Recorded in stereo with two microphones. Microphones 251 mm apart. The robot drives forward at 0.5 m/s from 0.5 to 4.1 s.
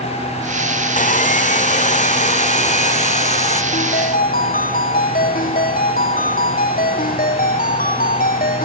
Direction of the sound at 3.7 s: 35° left (ahead or behind).